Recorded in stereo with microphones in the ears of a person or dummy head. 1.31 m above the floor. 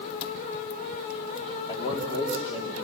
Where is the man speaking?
30° left (ahead or behind), 2.5 m.